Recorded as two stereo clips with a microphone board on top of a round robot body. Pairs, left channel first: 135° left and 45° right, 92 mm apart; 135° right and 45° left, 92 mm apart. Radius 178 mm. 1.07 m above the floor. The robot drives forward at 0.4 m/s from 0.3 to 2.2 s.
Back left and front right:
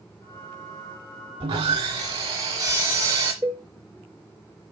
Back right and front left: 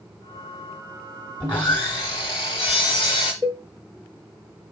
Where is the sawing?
60° right, 1.1 m; by 3.3 s 85° right, 1.0 m.